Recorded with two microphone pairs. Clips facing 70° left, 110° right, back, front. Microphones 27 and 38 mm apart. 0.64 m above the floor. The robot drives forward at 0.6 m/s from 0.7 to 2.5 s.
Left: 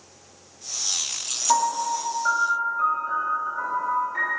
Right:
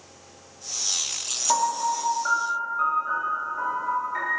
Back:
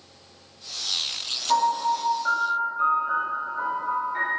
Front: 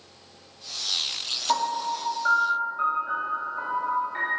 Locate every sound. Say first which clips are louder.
1.5 s a piano: left 1 dB, back 4 dB; 20° right, 1.5 m; by 4.3 s 45° right, 1.2 m